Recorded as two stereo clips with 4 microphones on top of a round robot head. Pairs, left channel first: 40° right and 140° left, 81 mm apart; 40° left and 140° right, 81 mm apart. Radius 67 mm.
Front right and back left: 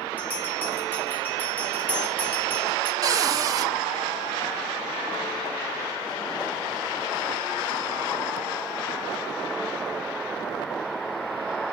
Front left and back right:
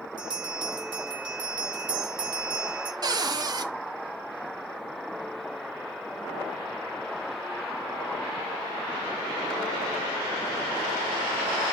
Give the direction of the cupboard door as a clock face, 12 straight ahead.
6 o'clock.